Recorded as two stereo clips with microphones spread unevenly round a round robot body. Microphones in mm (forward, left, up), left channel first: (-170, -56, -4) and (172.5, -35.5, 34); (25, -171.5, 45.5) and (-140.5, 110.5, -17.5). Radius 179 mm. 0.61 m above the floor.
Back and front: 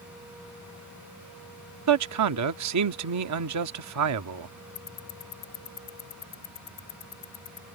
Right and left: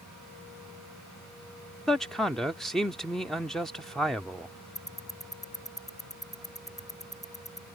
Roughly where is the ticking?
Behind right.